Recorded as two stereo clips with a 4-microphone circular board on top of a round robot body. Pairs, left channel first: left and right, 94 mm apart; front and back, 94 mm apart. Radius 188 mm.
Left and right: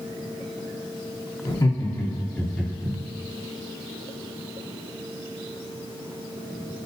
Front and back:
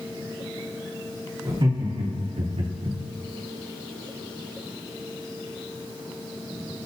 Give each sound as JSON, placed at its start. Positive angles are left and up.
{"t": 1.4, "sound": "laughter", "azimuth_deg": 135, "distance_m": 1.2}